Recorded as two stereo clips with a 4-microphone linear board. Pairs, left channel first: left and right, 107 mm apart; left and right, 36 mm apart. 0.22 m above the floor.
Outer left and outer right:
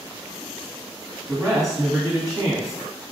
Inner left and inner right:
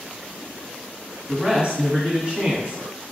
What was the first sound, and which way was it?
A man speaking, 35° right (ahead or behind).